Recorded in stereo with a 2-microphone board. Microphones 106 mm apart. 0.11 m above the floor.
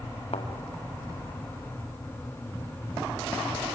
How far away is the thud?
About 3 m.